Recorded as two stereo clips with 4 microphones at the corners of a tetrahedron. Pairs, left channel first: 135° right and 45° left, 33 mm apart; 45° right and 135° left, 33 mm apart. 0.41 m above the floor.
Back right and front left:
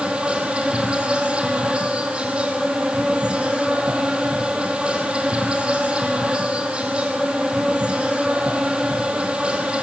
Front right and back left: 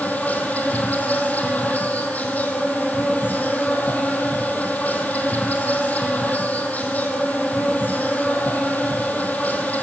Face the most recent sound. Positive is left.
turn(degrees=-10)